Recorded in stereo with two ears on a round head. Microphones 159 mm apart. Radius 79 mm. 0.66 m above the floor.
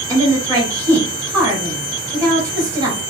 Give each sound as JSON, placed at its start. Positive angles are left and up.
{"t": 0.1, "sound": "a woman speaking", "side_deg": -20, "distance_m": 2.5}